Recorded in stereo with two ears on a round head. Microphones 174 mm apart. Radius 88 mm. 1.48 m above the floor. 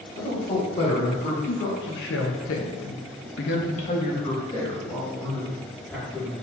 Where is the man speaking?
40° left (ahead or behind), 1.9 m; by 6.3 s centre (ahead or behind), 2 m.